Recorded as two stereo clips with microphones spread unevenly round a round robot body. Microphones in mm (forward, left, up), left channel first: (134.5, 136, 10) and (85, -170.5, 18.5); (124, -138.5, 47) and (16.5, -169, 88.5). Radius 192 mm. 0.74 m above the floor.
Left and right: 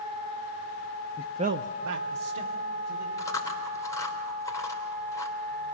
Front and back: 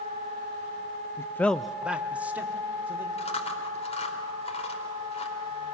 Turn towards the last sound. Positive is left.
turn(degrees=0)